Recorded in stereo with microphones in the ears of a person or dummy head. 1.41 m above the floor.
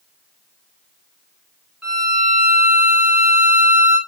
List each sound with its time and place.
1.8 s a violin: centre (ahead or behind), 0.7 m